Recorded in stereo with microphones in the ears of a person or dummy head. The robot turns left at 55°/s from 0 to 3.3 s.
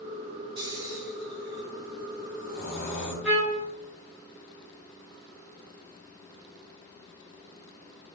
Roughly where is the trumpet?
Centre.